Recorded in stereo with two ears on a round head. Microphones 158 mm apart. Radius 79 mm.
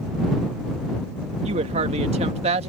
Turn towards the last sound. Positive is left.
turn(degrees=-35)  # may be behind; listen again after turning